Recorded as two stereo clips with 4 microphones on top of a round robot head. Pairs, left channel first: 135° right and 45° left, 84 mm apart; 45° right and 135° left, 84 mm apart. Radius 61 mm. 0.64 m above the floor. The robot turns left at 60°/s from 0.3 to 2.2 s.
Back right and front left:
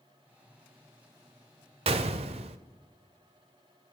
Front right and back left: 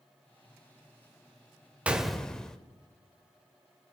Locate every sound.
1.9 s a gunshot: 60° left, 0.7 m; by 2.6 s 40° left, 0.7 m